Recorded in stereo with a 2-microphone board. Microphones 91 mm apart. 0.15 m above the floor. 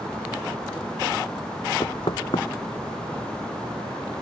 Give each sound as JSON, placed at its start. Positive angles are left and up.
{"t": 1.8, "sound": "knocking", "side_deg": 75}